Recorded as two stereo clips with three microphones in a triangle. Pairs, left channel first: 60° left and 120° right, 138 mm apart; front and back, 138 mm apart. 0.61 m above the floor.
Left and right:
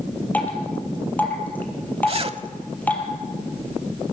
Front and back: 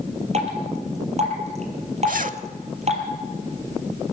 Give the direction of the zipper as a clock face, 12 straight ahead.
6 o'clock.